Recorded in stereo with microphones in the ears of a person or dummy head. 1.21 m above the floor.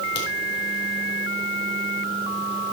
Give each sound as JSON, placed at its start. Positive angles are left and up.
{"t": 0.1, "sound": "a crack", "side_deg": 60, "distance_m": 3.0}